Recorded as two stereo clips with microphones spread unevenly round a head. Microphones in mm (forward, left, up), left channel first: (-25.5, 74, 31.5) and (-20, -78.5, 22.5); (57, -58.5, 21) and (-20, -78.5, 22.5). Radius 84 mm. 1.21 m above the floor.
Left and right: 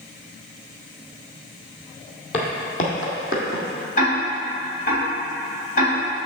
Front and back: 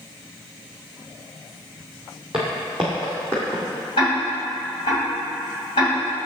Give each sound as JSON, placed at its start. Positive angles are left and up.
{"t": 2.3, "sound": "footsteps", "azimuth_deg": 115, "distance_m": 1.5}
{"t": 4.0, "sound": "ticking", "azimuth_deg": 50, "distance_m": 2.5}